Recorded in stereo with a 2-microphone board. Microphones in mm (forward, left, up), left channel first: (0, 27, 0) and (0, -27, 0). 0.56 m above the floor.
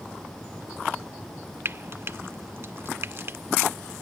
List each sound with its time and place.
1.6 s frying: 45° right (ahead or behind), 0.5 m